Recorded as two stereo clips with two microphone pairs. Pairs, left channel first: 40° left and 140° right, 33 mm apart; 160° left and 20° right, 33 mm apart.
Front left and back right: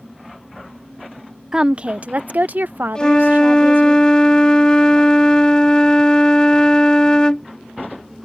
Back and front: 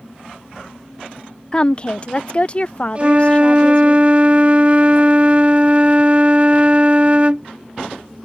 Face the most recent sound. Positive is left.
turn(degrees=-5)